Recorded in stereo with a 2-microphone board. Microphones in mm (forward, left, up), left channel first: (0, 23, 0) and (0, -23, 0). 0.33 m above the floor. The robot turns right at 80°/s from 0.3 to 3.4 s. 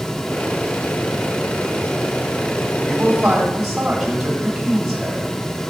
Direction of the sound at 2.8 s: 55° right.